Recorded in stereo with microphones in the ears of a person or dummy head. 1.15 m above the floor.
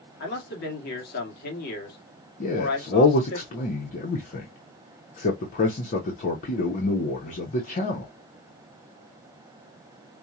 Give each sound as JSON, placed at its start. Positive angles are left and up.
{"t": 0.2, "sound": "a man speaking", "side_deg": 50, "distance_m": 2.0}
{"t": 2.4, "sound": "a man speaking", "side_deg": 40, "distance_m": 0.8}